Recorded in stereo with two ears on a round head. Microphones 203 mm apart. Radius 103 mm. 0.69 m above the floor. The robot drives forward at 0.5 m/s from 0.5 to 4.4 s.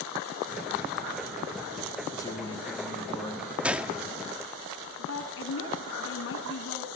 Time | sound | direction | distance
2.1 | a man speaking | 15° left (ahead or behind) | 5.5 m
3.6 | a gunshot | 5° right (ahead or behind) | 1.3 m
5.0 | a woman speaking | 65° left (ahead or behind) | 6 m